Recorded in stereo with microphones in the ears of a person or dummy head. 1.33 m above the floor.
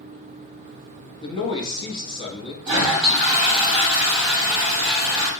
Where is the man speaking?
25° left (ahead or behind), 1.5 m.